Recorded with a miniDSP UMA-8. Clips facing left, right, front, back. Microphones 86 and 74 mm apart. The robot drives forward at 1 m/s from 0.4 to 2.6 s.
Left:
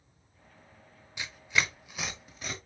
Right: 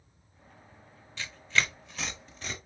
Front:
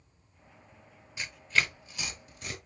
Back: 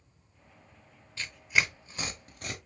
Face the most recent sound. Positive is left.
turn(degrees=170)